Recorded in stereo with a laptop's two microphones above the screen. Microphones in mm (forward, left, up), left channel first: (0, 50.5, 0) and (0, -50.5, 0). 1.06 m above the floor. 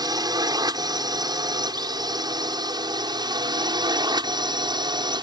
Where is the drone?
45° right (ahead or behind); by 5.2 s 50° right (ahead or behind).